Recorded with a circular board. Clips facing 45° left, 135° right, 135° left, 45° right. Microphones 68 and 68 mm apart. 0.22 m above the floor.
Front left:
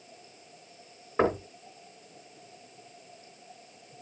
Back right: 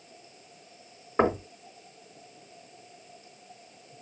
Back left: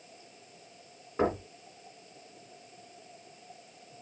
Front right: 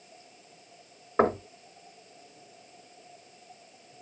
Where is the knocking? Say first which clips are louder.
Back right 1 dB, front right 5 dB; 75° right, 2 m.